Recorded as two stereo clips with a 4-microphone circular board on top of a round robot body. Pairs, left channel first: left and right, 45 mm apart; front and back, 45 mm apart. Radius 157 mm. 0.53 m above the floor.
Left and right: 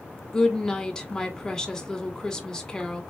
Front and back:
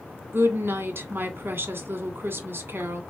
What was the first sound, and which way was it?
A woman speaking, 165° left.